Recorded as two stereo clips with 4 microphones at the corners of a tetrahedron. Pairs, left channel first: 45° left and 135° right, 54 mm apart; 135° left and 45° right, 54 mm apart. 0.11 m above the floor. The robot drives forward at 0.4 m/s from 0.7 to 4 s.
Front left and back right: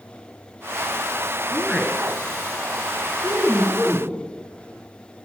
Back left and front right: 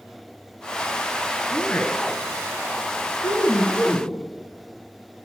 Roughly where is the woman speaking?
Behind left.